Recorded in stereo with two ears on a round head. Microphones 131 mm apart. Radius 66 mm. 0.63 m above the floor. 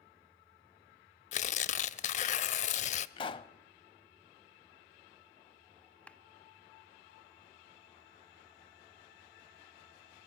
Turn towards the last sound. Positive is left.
turn(degrees=10)  # may be behind; listen again after turning